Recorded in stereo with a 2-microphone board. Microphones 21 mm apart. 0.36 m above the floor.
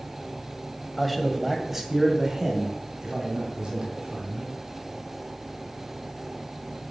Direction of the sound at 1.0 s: Centre (ahead or behind).